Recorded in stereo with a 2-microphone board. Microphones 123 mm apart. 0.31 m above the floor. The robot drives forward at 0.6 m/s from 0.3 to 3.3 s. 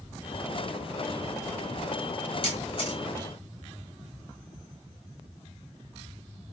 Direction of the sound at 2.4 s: 45° left (ahead or behind).